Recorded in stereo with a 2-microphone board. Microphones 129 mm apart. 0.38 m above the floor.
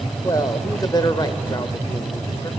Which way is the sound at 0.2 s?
30° left (ahead or behind).